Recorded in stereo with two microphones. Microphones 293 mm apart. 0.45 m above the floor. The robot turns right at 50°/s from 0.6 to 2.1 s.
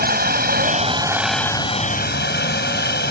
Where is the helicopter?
35° right; by 3.1 s 40° left.